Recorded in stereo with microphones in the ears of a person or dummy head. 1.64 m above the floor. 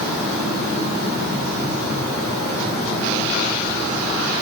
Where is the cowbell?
I don't hear a cowbell.